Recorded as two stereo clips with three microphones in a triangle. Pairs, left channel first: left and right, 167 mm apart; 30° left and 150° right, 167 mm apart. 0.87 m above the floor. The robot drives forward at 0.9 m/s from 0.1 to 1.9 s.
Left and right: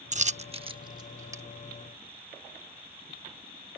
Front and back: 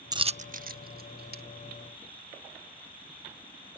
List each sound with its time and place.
0.1 s a dropped coin: 90° right; by 1.4 s 165° right